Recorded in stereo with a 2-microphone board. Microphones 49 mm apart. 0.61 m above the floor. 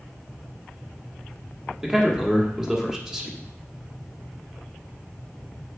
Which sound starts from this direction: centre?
A man speaking, at 1.8 s.